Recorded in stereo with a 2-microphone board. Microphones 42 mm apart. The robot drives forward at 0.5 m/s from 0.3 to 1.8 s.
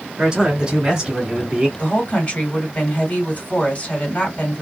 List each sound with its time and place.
0.2 s a man speaking: 20° right (ahead or behind), 1.6 m
1.8 s a woman speaking: 40° left (ahead or behind), 1.9 m